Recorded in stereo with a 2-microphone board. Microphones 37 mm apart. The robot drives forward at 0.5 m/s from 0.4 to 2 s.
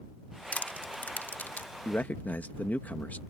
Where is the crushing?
50° left (ahead or behind); by 1.8 s 75° left (ahead or behind).